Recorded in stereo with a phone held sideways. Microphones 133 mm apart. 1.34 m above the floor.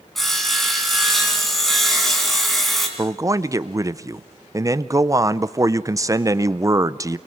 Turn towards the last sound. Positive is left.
turn(degrees=-25)  # may be behind; listen again after turning